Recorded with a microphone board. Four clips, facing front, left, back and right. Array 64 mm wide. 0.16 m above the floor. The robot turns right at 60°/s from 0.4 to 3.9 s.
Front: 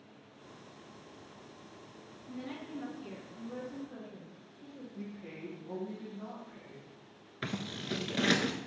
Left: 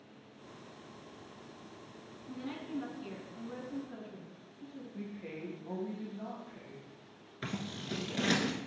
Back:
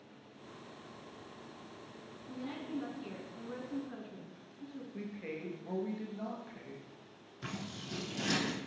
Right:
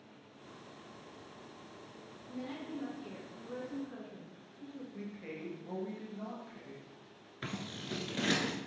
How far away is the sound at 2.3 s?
About 1.9 m.